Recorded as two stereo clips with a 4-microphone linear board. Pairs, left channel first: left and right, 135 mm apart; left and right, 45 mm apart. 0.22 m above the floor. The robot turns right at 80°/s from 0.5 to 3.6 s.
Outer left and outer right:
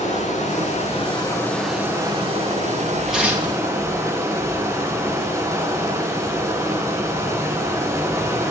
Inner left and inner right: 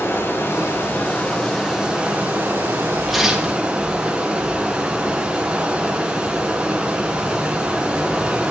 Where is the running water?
85° left, 2 m; by 8.5 s 25° right, 2 m.